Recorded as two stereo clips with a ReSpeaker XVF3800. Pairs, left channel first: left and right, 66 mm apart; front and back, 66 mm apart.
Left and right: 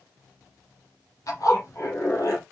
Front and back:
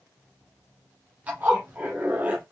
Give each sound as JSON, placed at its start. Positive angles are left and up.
{"t": 1.3, "sound": "a zipper", "azimuth_deg": 115, "distance_m": 4.0}